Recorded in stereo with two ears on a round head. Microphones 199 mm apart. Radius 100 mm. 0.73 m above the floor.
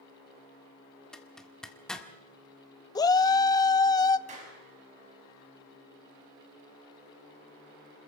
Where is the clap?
30° right (ahead or behind), 5.5 m.